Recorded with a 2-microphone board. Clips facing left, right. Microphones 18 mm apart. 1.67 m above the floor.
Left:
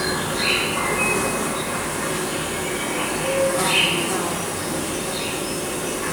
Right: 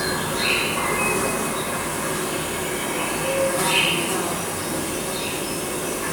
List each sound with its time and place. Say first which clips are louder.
0.0 s an insect: left 1 dB; 15° left (ahead or behind), 0.9 m